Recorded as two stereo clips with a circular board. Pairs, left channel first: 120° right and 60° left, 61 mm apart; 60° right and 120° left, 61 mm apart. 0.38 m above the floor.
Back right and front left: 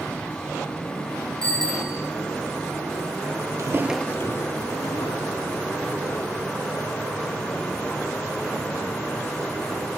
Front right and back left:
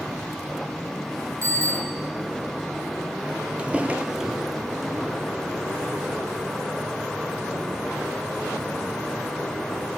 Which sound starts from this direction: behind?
A bicycle bell, at 1.4 s.